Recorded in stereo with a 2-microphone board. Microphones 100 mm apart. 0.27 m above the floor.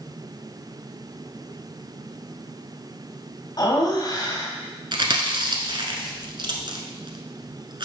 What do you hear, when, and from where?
3.6 s laughter: 40° left (ahead or behind), 1.6 m
4.9 s chewing: 50° right (ahead or behind), 0.9 m